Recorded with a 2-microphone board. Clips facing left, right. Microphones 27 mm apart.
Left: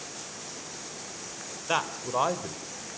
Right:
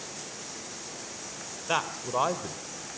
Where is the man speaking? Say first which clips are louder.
Even; centre (ahead or behind), 1.2 m.